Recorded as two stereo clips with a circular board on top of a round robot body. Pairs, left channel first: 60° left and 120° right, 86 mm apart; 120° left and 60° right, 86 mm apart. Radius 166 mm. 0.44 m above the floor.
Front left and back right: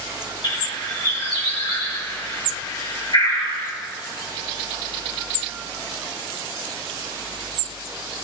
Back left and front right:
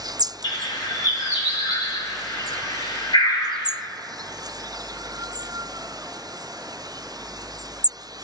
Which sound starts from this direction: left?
A bird, at 0.4 s.